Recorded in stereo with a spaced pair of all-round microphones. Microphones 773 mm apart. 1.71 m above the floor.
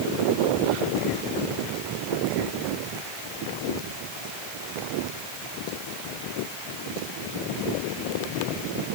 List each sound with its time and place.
Only background noise.